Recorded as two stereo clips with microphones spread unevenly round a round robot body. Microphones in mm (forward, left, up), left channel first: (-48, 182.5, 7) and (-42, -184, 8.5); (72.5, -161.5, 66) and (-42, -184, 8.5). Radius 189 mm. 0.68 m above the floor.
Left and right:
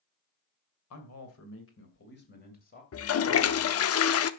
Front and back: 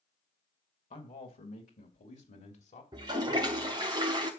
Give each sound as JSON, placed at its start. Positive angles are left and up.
{"t": 0.9, "sound": "a man speaking", "azimuth_deg": 45, "distance_m": 2.5}
{"t": 2.9, "sound": "a toilet flushing", "azimuth_deg": 140, "distance_m": 0.8}